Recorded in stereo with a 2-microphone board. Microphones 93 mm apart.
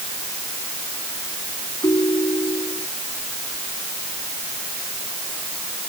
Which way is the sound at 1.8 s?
50° left (ahead or behind).